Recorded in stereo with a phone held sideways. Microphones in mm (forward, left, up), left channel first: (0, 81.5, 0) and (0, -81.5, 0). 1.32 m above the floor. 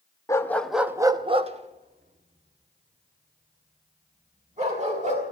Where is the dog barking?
20° left (ahead or behind), 0.9 m; by 5.2 s 45° right (ahead or behind), 4.5 m.